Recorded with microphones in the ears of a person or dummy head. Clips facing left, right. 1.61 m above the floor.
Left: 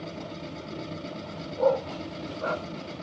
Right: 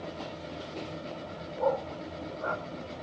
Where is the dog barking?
50° left (ahead or behind), 1.8 m.